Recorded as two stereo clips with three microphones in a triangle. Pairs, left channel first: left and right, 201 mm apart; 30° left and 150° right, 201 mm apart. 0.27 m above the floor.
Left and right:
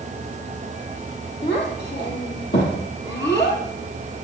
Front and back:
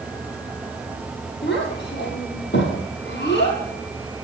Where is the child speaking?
60° left, 5.5 m.